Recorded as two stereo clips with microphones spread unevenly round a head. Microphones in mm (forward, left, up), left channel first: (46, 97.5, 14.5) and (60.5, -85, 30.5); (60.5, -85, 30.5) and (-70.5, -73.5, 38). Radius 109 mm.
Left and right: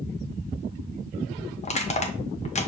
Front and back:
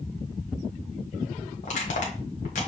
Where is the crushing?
40° left, 0.9 m.